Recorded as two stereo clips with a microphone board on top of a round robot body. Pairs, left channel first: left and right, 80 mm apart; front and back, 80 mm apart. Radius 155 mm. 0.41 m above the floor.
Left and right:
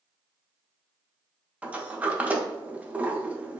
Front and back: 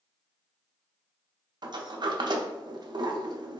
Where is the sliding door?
160° right, 0.5 m.